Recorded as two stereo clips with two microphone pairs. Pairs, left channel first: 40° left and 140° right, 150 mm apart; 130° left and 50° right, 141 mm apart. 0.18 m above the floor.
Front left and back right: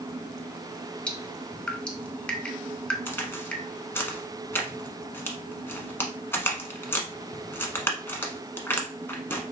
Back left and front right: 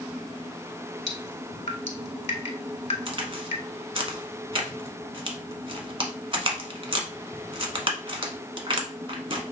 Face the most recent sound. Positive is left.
turn(degrees=-25)